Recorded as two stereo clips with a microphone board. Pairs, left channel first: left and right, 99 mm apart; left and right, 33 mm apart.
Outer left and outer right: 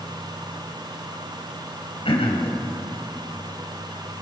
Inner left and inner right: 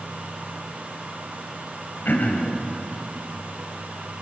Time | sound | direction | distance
2.0 | throat clearing | 75° left (ahead or behind) | 4.5 m